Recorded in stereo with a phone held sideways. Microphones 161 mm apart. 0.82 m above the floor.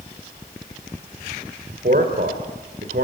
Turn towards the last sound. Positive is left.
turn(degrees=-70)  # may be behind; listen again after turning